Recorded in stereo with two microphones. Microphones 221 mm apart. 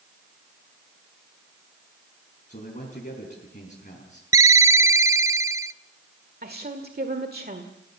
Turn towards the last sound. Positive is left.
turn(degrees=-45)  # may be behind; listen again after turning